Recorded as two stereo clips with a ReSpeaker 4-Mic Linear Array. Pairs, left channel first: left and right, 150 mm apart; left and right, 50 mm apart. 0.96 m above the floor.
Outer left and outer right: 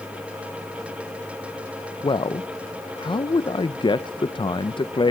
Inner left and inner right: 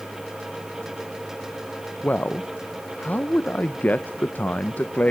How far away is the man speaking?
About 0.5 m.